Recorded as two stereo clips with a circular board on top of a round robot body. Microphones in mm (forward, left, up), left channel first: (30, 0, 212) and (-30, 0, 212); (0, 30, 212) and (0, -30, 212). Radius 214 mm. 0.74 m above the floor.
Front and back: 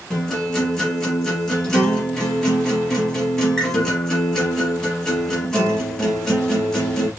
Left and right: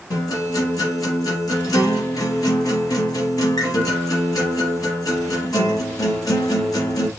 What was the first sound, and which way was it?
A guitar, 80° left.